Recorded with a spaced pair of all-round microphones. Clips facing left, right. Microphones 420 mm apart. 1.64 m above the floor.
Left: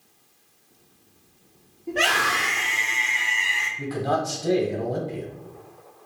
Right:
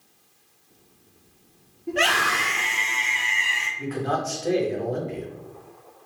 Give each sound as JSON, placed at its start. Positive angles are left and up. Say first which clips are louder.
{"t": 1.9, "sound": "a scream", "louder": "right 1 dB", "side_deg": -25, "distance_m": 1.2}
{"t": 3.8, "sound": "a man speaking", "louder": "left 1 dB", "side_deg": 55, "distance_m": 1.1}